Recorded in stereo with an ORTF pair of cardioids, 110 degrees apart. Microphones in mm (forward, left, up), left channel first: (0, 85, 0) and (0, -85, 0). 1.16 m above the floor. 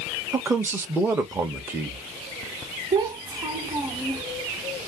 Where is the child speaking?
20° right, 1.2 m.